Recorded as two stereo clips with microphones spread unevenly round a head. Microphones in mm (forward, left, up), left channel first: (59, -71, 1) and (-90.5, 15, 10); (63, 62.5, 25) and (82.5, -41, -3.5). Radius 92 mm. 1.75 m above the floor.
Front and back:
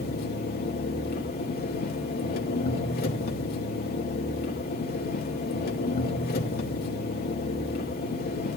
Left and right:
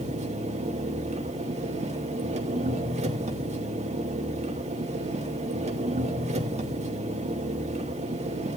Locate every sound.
0.0 s an engine running: 65° right, 2.5 m